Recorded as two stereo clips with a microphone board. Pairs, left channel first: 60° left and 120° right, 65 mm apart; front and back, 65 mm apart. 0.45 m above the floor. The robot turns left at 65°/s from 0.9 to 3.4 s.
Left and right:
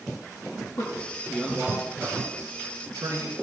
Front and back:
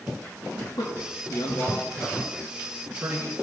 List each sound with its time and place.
0.8 s a man speaking: 20° left, 4.5 m; by 3.3 s 135° right, 4.5 m